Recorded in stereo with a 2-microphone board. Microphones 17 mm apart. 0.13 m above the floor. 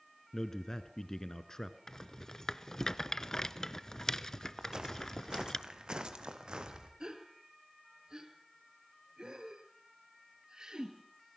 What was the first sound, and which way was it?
A man speaking, 35° left (ahead or behind).